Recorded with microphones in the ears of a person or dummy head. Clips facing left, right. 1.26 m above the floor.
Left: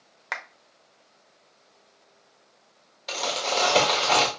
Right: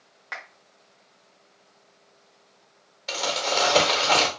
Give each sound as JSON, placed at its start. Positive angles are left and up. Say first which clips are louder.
{"t": 0.3, "sound": "a clap", "louder": "left 3 dB", "side_deg": 70, "distance_m": 0.6}
{"t": 3.1, "sound": "crumpling", "louder": "right 1 dB", "side_deg": 0, "distance_m": 1.5}